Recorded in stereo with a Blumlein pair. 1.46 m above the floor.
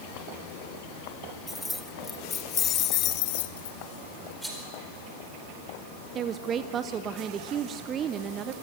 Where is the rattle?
5° right, 4.5 m.